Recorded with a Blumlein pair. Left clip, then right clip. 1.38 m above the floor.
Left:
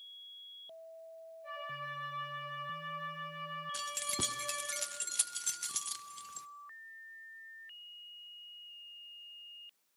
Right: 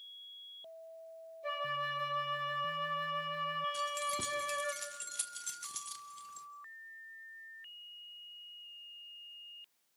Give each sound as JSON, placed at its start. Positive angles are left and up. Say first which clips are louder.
{"t": 1.4, "sound": "a flute", "louder": "right 6 dB", "azimuth_deg": -55, "distance_m": 4.5}
{"t": 3.7, "sound": "keys jangling", "louder": "right 2 dB", "azimuth_deg": 20, "distance_m": 0.9}